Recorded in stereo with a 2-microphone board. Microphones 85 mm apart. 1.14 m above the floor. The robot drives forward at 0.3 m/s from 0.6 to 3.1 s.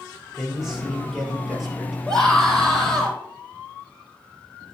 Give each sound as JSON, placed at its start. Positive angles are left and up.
{"t": 0.4, "sound": "a man speaking", "side_deg": -5, "distance_m": 5.0}
{"t": 2.1, "sound": "a scream", "side_deg": 5, "distance_m": 4.5}